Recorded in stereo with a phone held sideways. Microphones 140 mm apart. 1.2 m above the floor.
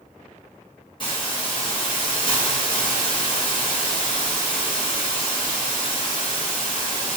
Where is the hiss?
35° left (ahead or behind), 1.1 m.